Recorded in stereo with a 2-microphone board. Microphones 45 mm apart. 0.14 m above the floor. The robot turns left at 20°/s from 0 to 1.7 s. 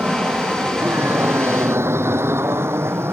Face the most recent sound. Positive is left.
turn(degrees=-70)  # may be behind; listen again after turning